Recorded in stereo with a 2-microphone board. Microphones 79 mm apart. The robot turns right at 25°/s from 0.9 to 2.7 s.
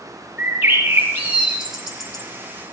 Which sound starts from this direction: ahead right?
A bird, at 0.4 s.